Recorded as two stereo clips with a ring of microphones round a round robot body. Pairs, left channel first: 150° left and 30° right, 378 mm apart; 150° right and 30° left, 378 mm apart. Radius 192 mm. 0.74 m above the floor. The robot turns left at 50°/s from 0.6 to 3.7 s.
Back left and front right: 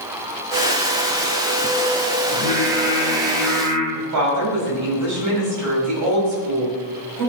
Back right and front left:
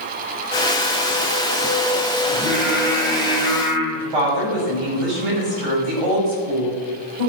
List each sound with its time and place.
2.3 s singing: 120° left, 5.5 m; by 3.8 s 50° left, 5.5 m
3.9 s a woman speaking: 15° left, 5 m